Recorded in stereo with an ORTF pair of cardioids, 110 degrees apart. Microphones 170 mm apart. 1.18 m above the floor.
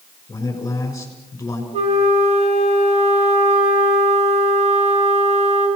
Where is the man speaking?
15° left, 6.5 m.